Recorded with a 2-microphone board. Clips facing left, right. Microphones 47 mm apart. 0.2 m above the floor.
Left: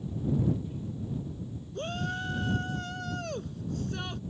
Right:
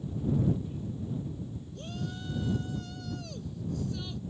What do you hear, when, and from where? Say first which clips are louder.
1.8 s a shout: left 7 dB; 55° left (ahead or behind)